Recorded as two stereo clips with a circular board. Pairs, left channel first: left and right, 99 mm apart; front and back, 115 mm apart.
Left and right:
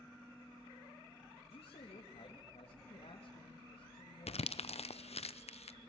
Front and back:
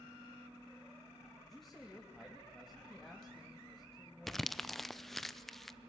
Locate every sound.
1.4 s a man speaking: 90° left, 3 m
4.3 s crumpling: 90° left, 0.7 m